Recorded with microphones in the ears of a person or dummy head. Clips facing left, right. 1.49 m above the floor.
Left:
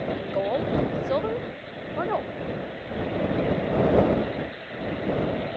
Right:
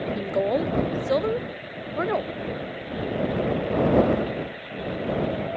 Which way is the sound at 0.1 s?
30° right (ahead or behind).